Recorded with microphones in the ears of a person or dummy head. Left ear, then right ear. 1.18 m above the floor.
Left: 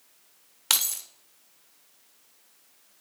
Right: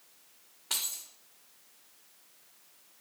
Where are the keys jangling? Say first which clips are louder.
Left 9 dB; 60° left (ahead or behind), 0.6 m.